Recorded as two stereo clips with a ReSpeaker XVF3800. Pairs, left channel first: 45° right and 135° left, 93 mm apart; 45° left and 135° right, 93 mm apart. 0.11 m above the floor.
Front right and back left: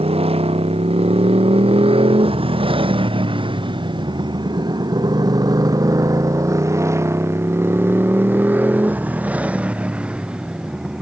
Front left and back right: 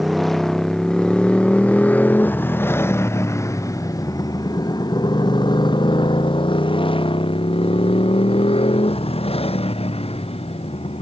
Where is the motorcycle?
135° left; by 11.0 s 50° left.